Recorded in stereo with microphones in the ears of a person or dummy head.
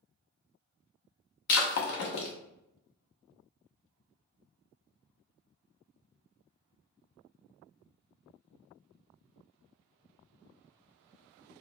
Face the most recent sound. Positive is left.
turn(degrees=60)  # may be behind; listen again after turning